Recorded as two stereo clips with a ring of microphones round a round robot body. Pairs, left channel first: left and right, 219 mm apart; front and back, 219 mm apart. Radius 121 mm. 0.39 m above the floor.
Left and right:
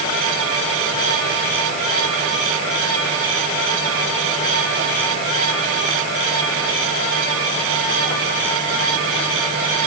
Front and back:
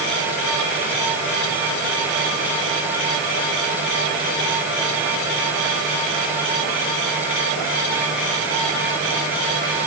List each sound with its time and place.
Only background noise.